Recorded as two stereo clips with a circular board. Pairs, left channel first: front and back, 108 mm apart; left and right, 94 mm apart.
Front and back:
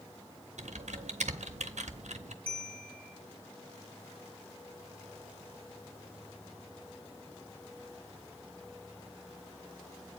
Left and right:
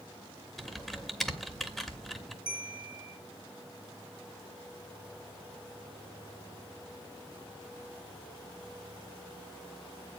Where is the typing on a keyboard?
175° left, 1.0 m.